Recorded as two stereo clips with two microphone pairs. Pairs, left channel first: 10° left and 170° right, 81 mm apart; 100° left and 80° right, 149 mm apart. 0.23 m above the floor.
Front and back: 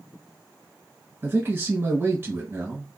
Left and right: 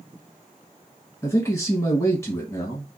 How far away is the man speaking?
About 1.4 m.